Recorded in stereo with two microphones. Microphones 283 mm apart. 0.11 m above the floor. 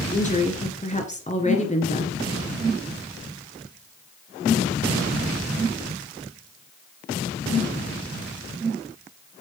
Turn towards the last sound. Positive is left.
turn(degrees=25)  # may be behind; listen again after turning